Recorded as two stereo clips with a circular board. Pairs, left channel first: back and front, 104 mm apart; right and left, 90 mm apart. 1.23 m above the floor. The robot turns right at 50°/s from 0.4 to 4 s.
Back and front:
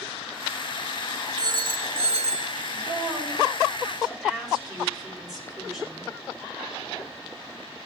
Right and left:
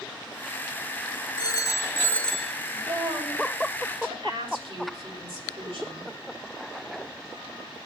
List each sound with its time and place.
1.4 s a phone ringing: 50° right, 1.2 m; by 2.5 s 5° left, 1.2 m
2.7 s a woman speaking: 20° left, 7.5 m; by 6.1 s 85° left, 7.5 m